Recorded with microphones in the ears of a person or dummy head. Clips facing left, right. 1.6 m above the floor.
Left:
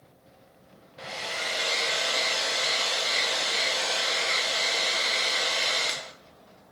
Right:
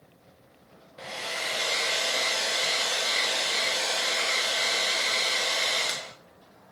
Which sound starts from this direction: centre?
A hair dryer, at 1.0 s.